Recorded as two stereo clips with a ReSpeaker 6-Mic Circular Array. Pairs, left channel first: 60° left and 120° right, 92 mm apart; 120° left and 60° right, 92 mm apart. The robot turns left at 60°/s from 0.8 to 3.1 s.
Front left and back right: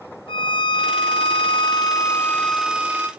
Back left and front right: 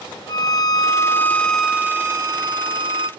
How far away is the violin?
About 0.6 m.